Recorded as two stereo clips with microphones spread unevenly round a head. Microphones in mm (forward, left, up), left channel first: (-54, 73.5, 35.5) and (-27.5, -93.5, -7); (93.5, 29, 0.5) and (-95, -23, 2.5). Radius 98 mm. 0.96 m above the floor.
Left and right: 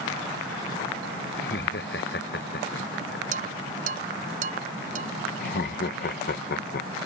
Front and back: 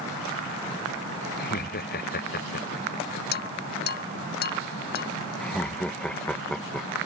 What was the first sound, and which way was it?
Laughter, 60° left.